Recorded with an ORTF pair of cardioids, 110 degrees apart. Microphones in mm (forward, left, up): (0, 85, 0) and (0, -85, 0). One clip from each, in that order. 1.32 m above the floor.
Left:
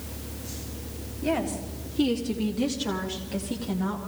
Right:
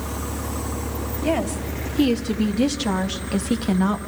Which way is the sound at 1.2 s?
25° right.